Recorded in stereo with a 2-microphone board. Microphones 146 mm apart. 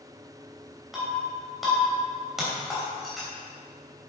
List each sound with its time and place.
0.9 s breaking glass: centre (ahead or behind), 3 m